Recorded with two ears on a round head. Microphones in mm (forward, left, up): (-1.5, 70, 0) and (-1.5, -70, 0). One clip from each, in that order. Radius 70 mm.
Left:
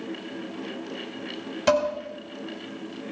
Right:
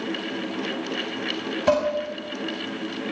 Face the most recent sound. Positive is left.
turn(degrees=70)  # may be behind; listen again after turning